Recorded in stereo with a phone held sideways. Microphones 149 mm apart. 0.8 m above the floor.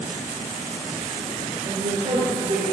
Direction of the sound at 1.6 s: 50° right (ahead or behind).